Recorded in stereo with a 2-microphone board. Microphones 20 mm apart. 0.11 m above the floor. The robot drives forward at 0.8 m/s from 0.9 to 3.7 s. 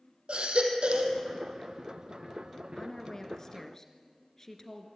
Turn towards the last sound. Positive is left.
turn(degrees=30)  # may be behind; listen again after turning